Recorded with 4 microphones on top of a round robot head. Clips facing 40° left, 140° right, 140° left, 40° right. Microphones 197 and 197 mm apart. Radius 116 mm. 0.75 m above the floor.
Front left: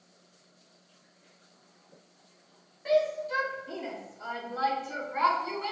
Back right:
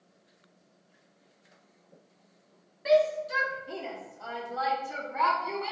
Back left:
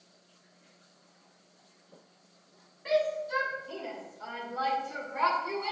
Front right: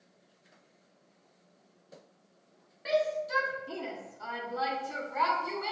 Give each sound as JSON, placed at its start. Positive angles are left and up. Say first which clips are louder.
{"t": 2.9, "sound": "a shout", "louder": "back right 3 dB, back left 1 dB", "azimuth_deg": -75, "distance_m": 2.0}